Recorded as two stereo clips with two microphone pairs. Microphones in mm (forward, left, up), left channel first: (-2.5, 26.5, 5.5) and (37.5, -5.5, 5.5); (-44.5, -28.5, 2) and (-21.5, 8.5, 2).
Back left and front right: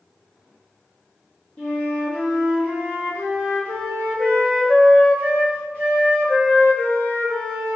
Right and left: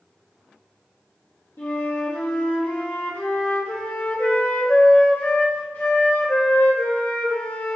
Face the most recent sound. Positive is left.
turn(degrees=-155)